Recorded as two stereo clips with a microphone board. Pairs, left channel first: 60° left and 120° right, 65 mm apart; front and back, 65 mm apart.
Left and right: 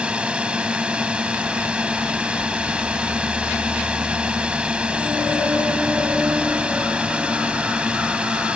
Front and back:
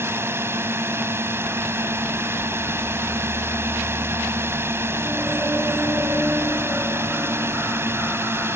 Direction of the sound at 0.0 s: 175° left.